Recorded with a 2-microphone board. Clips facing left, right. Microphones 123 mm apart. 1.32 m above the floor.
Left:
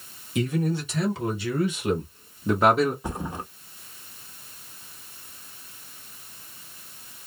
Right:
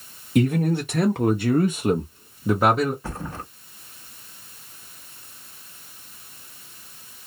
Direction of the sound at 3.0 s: 15° left (ahead or behind).